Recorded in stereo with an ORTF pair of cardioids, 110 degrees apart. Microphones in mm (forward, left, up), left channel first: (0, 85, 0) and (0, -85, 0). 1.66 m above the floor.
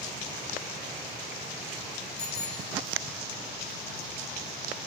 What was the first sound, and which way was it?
A bicycle bell, 45° left.